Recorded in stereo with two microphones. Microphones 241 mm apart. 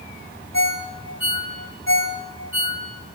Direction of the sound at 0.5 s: 60° left (ahead or behind).